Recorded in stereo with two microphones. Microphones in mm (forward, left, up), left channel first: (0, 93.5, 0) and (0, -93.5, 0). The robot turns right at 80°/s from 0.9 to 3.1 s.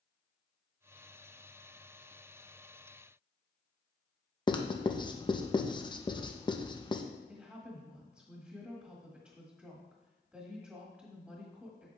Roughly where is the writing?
Left.